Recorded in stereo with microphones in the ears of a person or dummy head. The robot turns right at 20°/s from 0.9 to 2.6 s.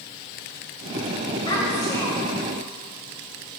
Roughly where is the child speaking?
Left.